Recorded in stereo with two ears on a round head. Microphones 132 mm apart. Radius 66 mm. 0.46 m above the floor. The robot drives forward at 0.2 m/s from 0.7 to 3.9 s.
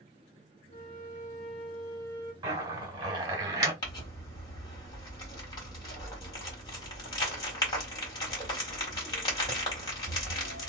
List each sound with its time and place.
0.7 s a flute: 30° left (ahead or behind), 1.3 m; by 2.3 s 35° left (ahead or behind), 1.1 m
2.4 s a zipper: 25° right (ahead or behind), 1.3 m
3.8 s crumpling: 30° left (ahead or behind), 1.6 m